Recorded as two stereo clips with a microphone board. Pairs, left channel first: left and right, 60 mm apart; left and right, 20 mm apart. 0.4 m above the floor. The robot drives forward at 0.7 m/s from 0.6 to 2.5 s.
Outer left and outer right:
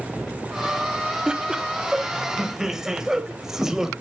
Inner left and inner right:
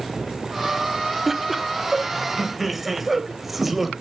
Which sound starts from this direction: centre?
Laughter, at 1.3 s.